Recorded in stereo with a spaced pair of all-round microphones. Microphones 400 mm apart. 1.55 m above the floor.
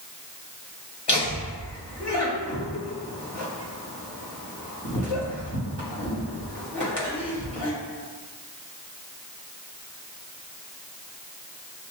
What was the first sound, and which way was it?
Laughter, 80° left.